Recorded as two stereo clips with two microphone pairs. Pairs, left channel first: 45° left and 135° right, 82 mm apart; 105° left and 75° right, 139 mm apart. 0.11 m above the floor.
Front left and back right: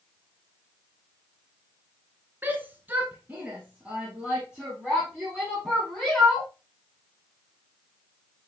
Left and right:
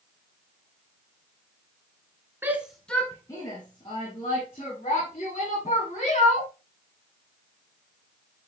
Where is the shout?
120° right, 1.2 m; by 6.5 s 140° left, 4.5 m.